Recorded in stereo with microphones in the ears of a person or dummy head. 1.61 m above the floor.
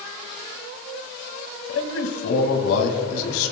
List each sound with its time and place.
1.7 s a man speaking: 80° left, 2 m